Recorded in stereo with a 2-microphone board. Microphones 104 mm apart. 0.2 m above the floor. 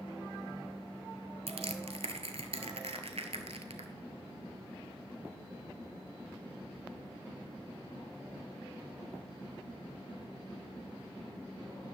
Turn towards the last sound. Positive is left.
turn(degrees=-80)